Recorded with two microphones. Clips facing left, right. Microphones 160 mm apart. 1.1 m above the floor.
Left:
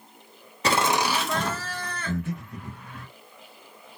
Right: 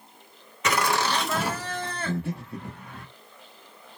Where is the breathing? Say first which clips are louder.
Left 2 dB; 30° right (ahead or behind), 0.9 m.